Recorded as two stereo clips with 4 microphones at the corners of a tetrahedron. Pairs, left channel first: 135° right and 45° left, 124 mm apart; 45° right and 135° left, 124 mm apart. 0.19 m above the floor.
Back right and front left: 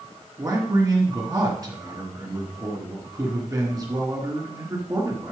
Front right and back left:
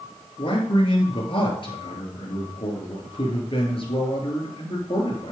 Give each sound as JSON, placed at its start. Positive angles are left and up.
{"t": 0.4, "sound": "a man speaking", "azimuth_deg": -10, "distance_m": 3.0}